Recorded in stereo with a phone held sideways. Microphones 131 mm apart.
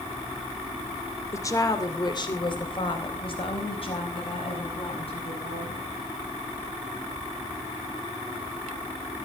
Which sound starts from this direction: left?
A woman speaking, at 1.3 s.